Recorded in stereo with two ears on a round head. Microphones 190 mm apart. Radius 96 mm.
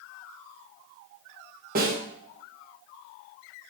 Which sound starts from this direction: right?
A snare drum, at 1.8 s.